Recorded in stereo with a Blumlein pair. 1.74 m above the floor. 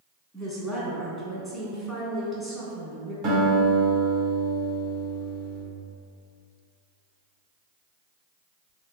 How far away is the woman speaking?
About 1.1 m.